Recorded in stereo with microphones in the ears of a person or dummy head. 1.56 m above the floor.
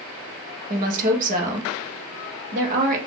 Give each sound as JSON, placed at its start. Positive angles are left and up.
{"t": 0.7, "sound": "a woman speaking", "side_deg": -45, "distance_m": 1.4}